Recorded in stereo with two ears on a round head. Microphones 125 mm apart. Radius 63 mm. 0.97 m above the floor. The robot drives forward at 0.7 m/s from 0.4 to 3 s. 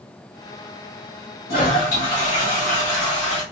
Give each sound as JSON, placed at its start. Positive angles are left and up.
{"t": 1.5, "sound": "a toilet flushing", "side_deg": 75, "distance_m": 2.5}